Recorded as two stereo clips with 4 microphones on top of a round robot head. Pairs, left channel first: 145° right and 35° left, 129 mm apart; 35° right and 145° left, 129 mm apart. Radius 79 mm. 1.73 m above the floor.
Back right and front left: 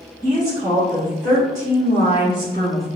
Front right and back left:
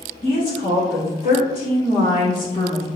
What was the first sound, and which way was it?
A woman speaking, 10° right.